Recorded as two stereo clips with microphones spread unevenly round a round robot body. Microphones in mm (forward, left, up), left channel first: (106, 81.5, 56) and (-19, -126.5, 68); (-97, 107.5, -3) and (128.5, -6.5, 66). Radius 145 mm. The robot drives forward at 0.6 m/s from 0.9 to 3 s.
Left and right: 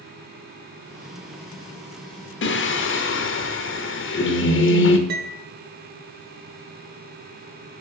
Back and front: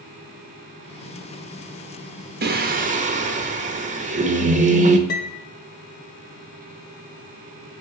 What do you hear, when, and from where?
2.4 s singing: 30° left, 1.4 m; by 5.0 s 40° left, 1.2 m
5.1 s a piano: 145° right, 0.6 m